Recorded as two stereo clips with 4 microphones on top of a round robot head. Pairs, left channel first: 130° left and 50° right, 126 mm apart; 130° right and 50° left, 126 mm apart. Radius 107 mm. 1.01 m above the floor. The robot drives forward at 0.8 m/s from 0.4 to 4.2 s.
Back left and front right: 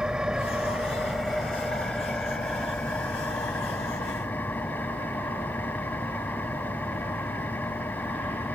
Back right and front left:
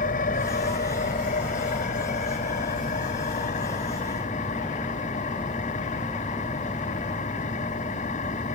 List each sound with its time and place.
0.0 s an engine running: 135° right; by 8.6 s 155° right